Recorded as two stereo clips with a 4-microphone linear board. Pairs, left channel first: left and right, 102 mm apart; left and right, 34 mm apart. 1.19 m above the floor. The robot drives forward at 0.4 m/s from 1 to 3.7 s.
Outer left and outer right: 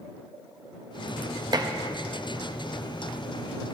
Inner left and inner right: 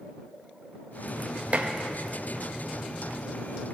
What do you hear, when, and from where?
1.5 s dishes clattering: 40° right (ahead or behind), 0.8 m